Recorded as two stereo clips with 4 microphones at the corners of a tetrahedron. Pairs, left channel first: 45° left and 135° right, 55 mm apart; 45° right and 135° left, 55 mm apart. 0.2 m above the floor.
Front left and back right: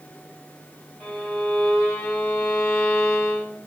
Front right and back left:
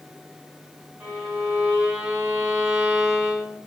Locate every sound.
1.0 s a violin: 95° left, 1.4 m